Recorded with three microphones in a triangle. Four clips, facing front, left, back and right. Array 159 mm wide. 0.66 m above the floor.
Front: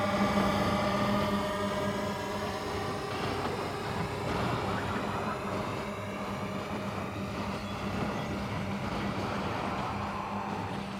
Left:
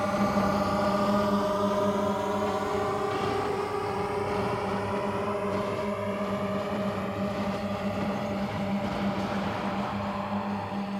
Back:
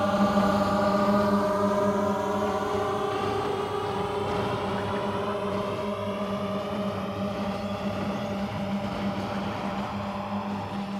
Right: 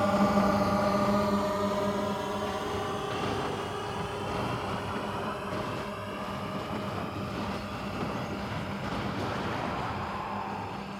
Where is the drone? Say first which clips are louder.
Right 1 dB, back 5 dB; 160° right; by 11.0 s 130° left.